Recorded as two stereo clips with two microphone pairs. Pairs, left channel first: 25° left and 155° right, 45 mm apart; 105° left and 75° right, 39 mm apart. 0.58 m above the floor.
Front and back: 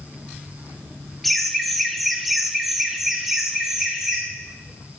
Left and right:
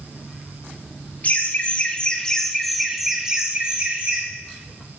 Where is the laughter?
115° left, 1.2 m; by 4.2 s 80° right, 1.1 m.